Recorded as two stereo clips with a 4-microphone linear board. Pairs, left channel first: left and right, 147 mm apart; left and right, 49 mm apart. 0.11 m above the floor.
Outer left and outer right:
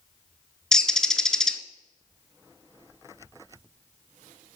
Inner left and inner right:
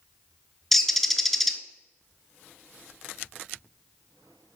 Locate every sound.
0.7 s a bird: 5° left (ahead or behind), 0.6 m